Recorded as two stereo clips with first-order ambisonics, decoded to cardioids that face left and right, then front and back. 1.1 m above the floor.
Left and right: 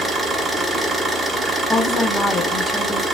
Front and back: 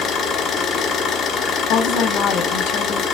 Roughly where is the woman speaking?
Ahead.